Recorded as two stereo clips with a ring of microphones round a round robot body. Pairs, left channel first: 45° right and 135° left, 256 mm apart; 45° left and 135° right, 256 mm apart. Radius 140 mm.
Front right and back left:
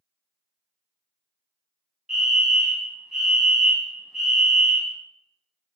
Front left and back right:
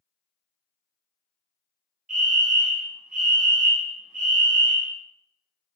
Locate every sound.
2.1 s a fire alarm: 140° right, 2.0 m